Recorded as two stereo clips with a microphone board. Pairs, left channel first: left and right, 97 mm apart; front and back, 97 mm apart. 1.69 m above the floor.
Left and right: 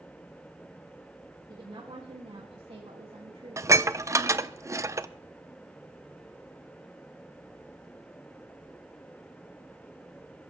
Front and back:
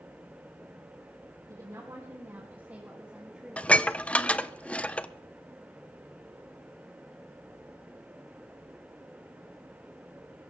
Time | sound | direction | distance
1.5 | a woman speaking | 130° right | 3 m
3.6 | dishes clattering | 70° right | 0.7 m